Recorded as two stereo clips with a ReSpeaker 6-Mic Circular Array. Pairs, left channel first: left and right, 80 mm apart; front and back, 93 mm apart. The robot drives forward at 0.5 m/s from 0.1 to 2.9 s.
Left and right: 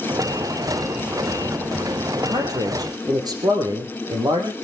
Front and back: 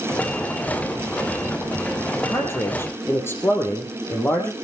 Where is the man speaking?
55° right, 3.5 m; by 4.5 s 65° right, 3.5 m.